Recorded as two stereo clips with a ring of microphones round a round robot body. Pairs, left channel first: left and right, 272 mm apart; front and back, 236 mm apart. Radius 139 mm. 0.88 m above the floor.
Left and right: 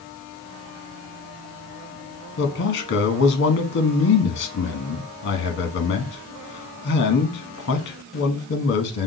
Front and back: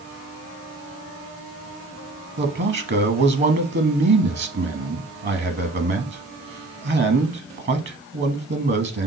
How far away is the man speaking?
About 1.0 m.